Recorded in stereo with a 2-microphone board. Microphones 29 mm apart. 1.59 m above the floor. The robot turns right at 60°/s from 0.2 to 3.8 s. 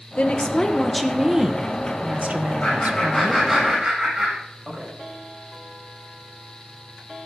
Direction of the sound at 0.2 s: 130° left.